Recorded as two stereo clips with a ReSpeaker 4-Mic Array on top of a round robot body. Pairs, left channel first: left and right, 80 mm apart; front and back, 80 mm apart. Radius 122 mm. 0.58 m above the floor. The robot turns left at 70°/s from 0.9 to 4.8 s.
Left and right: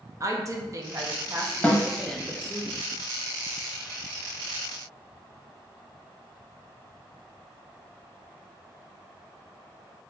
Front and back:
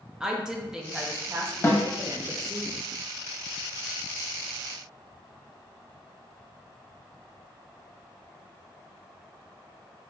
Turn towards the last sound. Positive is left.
turn(degrees=175)